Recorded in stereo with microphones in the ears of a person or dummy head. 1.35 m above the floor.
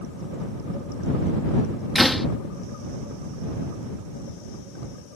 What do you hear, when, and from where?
1.9 s a door slam: centre (ahead or behind)